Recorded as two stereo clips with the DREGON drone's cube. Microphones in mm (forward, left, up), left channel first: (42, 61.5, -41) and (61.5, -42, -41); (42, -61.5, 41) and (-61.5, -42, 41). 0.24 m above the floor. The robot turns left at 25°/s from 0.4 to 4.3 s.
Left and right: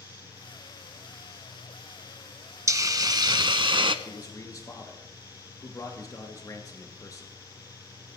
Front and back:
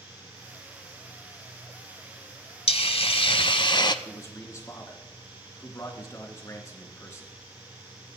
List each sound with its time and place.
2.7 s a hiss: 20° right, 0.6 m; by 4.0 s 55° right, 0.6 m
4.0 s a man speaking: 55° left, 2.5 m; by 7.3 s 45° left, 2.5 m